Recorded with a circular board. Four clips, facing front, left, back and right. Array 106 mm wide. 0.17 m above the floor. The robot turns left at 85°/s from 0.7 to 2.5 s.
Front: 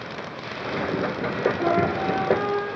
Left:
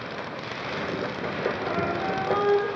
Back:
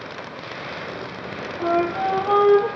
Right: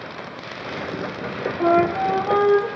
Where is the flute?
85° right, 2.5 m; by 2.7 s 160° right, 2.5 m.